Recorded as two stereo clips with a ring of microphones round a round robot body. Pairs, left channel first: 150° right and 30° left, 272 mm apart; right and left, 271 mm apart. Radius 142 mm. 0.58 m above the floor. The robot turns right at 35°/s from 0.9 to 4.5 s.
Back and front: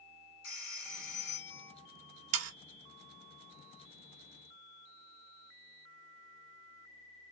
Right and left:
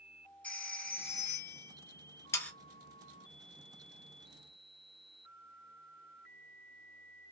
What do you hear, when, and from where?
0.4 s a phone ringing: 175° right, 1.5 m; by 1.7 s 145° right, 1.5 m
2.3 s sawing: 10° right, 0.5 m; by 2.5 s 5° right, 0.5 m